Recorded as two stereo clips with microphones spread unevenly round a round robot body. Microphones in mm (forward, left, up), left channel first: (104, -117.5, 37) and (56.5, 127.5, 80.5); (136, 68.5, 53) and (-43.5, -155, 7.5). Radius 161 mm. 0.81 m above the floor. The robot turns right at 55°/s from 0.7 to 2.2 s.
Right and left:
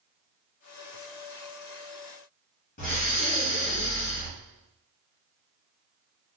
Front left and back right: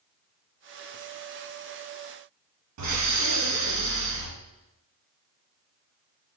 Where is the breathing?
130° right, 1.0 m.